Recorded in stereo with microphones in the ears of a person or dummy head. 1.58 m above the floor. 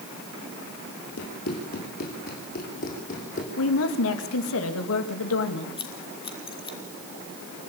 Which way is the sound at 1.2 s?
55° left (ahead or behind).